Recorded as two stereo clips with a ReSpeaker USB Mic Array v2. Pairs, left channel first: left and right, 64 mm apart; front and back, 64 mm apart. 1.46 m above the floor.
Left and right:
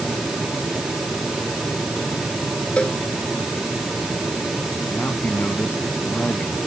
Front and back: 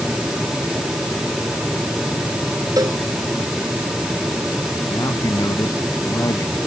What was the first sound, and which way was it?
A cowbell, 160° left.